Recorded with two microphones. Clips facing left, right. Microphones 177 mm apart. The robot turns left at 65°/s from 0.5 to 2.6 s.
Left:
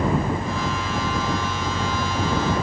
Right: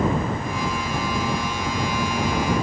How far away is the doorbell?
No doorbell in this recording.